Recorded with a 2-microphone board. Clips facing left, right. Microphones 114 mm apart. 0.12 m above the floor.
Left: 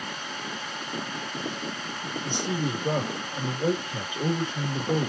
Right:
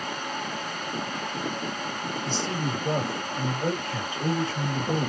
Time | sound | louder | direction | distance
2.2 | a man speaking | left 2 dB | 15° left (ahead or behind) | 2 m